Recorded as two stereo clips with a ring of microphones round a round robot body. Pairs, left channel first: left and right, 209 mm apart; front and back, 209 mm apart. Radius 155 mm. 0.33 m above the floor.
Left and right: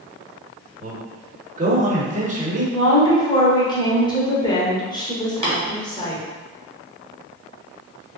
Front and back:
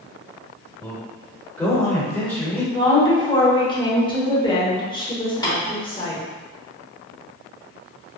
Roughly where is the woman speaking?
Ahead left.